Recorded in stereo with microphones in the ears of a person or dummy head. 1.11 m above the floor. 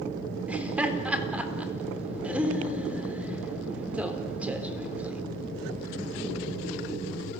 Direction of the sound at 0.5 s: 10° right (ahead or behind).